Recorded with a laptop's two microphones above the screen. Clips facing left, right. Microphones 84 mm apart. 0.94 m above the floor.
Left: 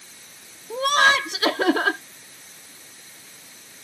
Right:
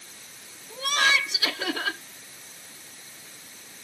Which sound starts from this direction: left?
Laughter, at 0.7 s.